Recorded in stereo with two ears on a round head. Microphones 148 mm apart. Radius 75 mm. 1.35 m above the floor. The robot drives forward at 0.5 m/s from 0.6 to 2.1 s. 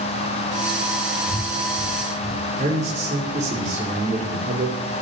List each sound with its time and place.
1.3 s breathing: 60° right (ahead or behind), 9 m
2.6 s a man speaking: 45° right (ahead or behind), 5.5 m